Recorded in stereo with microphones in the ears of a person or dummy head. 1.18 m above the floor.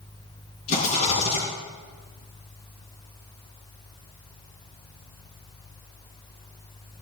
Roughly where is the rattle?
Left.